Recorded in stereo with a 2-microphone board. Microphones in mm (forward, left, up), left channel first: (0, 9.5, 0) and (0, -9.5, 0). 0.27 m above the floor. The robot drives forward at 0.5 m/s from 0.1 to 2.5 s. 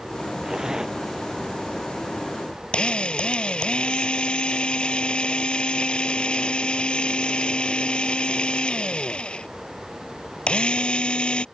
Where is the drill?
70° left (ahead or behind).